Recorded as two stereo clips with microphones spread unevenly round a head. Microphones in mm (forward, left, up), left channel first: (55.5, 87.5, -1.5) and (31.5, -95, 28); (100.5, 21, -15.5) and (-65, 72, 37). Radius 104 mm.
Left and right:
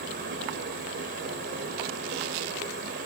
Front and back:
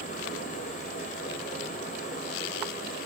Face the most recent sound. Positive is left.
turn(degrees=-75)